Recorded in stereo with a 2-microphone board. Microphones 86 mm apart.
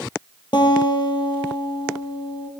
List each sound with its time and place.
0.5 s a guitar: 65° left (ahead or behind), 4.5 m